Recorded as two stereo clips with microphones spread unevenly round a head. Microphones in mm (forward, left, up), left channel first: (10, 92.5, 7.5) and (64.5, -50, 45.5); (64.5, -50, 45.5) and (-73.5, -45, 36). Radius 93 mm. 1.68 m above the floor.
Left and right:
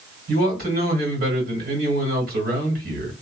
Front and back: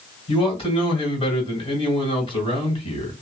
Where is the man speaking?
50° right, 1.9 m.